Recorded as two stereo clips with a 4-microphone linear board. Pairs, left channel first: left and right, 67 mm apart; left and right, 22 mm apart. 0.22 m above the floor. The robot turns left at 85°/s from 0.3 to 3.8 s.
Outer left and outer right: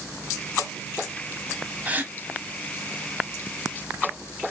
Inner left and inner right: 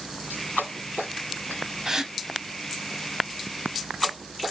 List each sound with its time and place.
1.9 s a gasp: 25° right (ahead or behind), 0.5 m; by 2.1 s 30° right (ahead or behind), 0.5 m